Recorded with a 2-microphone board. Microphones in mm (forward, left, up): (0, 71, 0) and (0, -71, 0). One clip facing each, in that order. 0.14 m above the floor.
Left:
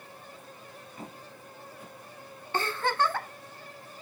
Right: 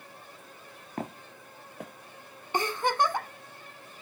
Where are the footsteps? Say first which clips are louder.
Right 9 dB; 85° right, 0.8 m.